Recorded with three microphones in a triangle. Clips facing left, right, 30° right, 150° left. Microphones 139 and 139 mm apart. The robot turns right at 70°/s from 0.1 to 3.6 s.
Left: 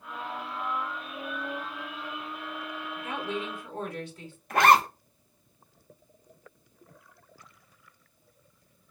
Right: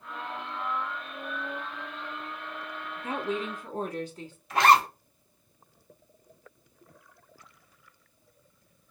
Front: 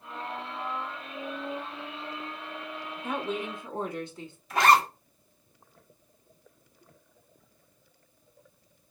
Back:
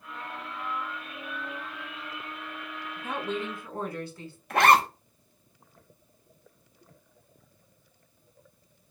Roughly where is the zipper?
Behind left.